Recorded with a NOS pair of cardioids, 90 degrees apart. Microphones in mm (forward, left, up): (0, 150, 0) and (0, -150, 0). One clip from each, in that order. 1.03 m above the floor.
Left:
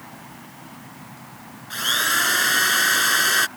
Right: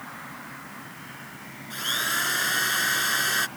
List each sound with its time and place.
1.7 s a drill: 40° left